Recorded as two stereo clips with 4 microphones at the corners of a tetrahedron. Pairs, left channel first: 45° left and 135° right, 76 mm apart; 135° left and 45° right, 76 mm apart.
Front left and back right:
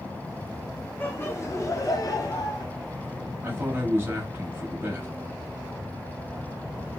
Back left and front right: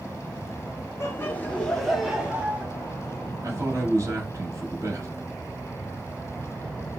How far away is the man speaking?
About 1.1 m.